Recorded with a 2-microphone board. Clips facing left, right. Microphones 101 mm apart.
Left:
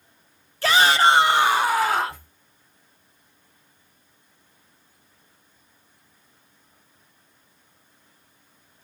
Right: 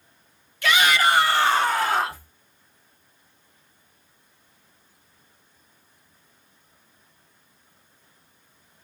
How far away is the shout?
About 0.7 m.